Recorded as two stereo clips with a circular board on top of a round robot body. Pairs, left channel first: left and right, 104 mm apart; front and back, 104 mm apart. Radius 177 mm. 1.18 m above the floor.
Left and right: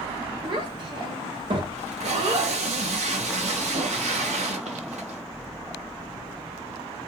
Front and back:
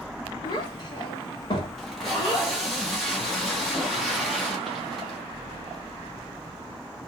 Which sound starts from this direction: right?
Tape being pulled, at 1.8 s.